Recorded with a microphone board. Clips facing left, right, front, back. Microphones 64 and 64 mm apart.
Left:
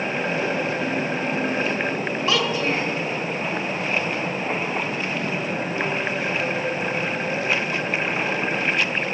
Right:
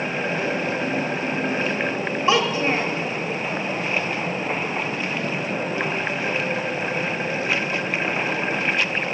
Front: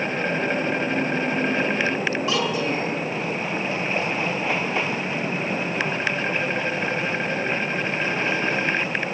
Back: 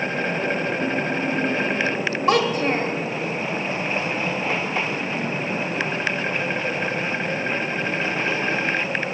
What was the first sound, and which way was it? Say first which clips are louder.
A child speaking: right 3 dB, back 9 dB; 150° right.